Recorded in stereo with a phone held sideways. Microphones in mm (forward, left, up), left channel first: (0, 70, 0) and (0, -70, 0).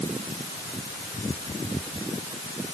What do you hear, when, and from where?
Only background noise.